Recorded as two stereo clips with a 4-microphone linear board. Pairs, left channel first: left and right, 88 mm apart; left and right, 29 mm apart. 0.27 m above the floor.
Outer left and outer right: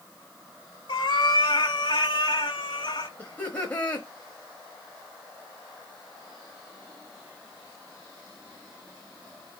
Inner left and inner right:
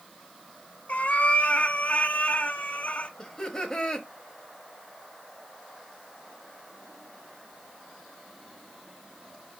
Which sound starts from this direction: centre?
Laughter, at 3.2 s.